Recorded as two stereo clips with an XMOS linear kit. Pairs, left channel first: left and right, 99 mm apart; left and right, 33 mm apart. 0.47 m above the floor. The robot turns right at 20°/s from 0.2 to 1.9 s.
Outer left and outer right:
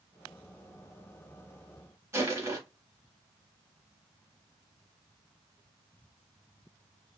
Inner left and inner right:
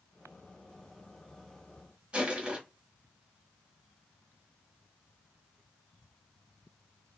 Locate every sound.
2.1 s crushing: 30° right (ahead or behind), 1.2 m